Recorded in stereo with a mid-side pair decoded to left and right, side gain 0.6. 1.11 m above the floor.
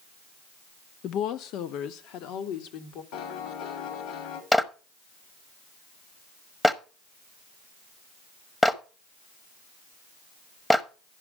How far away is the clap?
About 0.8 m.